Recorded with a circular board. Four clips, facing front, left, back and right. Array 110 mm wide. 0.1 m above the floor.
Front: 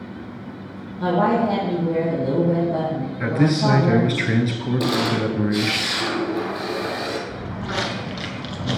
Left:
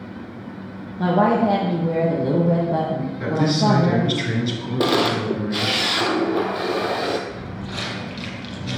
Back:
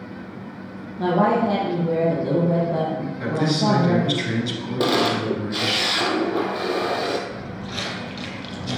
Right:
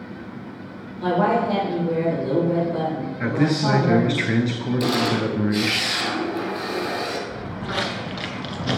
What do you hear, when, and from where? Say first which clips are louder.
1.0 s a woman speaking: left 2 dB, even; 115° left, 3.5 m
3.2 s a man speaking: left 1 dB, front 3 dB; 40° right, 1.3 m
4.8 s a camera shutter: left 4 dB, back 3 dB; 120° left, 1.2 m
7.3 s footsteps: right 3 dB, front 4 dB; 40° right, 2 m; by 8.8 s 75° right, 1.2 m